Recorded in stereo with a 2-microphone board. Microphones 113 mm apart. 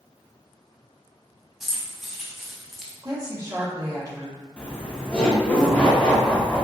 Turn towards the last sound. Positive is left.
turn(degrees=10)  # may be behind; listen again after turning